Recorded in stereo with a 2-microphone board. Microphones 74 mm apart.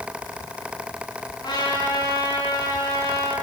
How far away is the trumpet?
About 7 m.